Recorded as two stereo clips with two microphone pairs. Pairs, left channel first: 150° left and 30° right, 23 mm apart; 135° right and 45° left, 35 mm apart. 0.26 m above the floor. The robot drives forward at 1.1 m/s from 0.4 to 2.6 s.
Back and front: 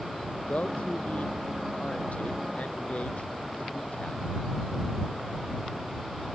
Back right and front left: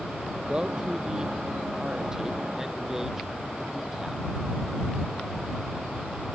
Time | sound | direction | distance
0.5 | a man speaking | 115° left | ?